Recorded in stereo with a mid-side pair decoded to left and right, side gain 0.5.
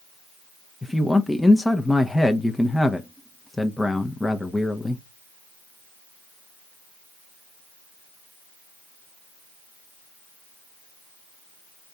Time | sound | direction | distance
0.8 | a man speaking | 10° left | 0.7 m